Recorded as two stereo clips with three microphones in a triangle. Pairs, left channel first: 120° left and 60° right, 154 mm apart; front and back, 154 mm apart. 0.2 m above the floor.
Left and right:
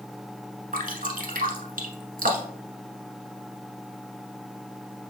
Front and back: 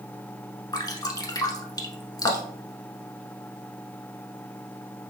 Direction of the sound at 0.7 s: 65° right.